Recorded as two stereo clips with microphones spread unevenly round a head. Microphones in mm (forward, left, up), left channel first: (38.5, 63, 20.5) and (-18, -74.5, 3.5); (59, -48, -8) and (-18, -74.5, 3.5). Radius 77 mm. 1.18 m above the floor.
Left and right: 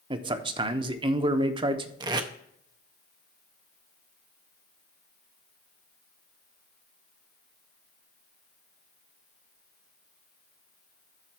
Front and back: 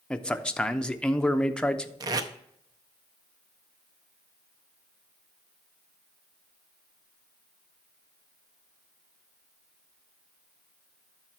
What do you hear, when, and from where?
0.1 s a man speaking: 60° right, 0.9 m
2.0 s tape being pulled: 175° right, 0.6 m